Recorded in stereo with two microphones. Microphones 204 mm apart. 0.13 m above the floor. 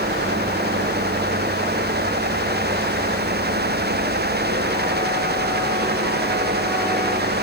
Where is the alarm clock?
I don't hear an alarm clock.